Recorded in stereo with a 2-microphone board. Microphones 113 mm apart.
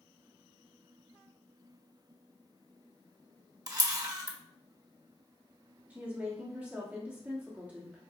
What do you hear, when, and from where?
3.7 s a camera shutter: 35° right (ahead or behind), 0.7 m
5.9 s a woman speaking: 15° right (ahead or behind), 1.2 m